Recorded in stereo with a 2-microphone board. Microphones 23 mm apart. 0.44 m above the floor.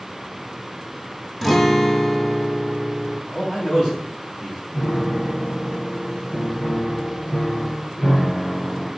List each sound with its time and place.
1.4 s a guitar: centre (ahead or behind), 0.6 m
3.3 s a man speaking: 15° right (ahead or behind), 3 m
4.7 s a piano: 25° left (ahead or behind), 4 m